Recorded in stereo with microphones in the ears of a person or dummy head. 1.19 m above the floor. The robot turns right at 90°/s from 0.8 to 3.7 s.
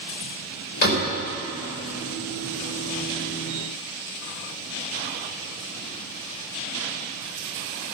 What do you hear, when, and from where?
0.8 s a door slam: 45° left (ahead or behind), 3.5 m; by 1.1 s 20° left (ahead or behind), 3.5 m